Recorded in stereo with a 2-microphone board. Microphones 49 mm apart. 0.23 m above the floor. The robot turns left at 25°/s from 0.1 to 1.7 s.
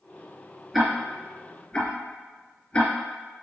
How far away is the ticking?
About 2.5 m.